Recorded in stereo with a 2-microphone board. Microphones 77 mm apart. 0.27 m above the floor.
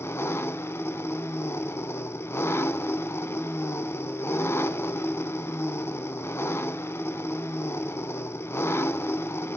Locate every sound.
0.0 s an engine running: 30° left (ahead or behind), 0.9 m